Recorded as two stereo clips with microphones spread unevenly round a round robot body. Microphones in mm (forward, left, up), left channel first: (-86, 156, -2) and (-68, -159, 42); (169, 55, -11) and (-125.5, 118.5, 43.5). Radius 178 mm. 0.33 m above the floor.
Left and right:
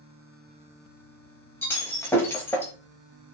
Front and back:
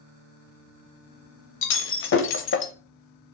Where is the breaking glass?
15° left, 0.9 m.